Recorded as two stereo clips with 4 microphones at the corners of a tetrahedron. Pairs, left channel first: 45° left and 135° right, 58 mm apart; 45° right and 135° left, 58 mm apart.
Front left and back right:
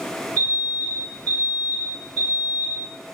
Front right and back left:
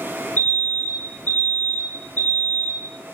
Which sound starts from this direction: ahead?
An alarm, at 0.4 s.